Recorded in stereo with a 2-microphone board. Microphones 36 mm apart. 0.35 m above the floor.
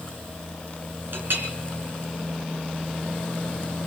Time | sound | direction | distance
1.1 | a clink | 80° right | 2.5 m